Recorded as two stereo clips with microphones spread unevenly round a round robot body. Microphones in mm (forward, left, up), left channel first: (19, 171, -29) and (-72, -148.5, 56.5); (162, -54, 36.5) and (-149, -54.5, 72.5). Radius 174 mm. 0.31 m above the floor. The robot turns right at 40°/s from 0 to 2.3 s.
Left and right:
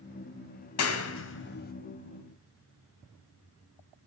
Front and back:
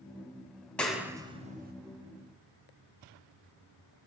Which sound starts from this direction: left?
A clap, at 0.8 s.